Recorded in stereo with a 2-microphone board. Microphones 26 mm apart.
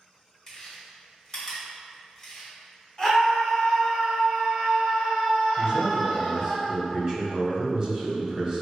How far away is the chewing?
About 1.2 m.